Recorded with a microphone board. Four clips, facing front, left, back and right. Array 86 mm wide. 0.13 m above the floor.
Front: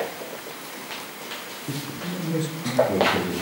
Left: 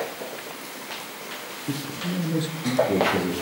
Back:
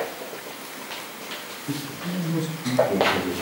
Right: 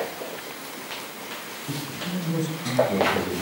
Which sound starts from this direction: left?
A man speaking, at 1.7 s.